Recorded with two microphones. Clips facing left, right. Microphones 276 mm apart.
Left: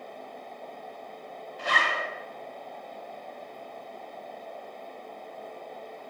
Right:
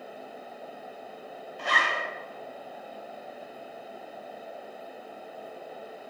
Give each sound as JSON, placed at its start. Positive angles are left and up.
{"t": 1.6, "sound": "a zipper", "side_deg": 45, "distance_m": 0.9}